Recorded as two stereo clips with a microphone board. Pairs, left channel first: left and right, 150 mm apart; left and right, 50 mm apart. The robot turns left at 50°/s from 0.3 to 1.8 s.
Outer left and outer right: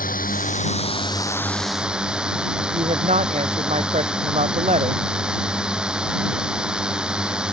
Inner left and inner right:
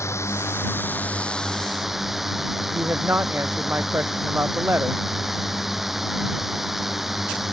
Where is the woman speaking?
50° right (ahead or behind).